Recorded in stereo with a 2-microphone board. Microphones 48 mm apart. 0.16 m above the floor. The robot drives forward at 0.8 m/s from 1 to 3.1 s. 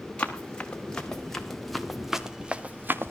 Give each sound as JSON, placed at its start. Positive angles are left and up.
{"t": 0.2, "sound": "running footsteps", "side_deg": 25, "distance_m": 3.5}